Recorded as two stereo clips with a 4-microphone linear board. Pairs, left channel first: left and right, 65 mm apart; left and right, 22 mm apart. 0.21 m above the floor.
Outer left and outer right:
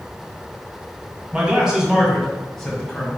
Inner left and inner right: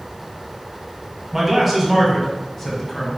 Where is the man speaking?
15° right (ahead or behind), 1.7 m; by 3.2 s 20° left (ahead or behind), 1.7 m.